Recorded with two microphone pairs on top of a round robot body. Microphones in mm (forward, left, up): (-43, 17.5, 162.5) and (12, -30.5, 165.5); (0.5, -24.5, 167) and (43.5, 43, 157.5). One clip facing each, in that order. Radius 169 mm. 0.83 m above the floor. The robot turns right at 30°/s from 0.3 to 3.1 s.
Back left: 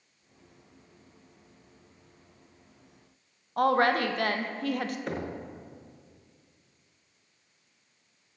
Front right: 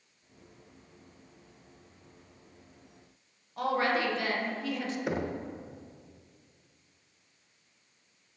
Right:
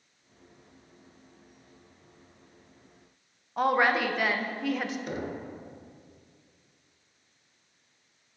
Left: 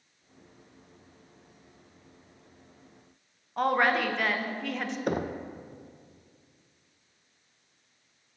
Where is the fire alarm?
I don't hear a fire alarm.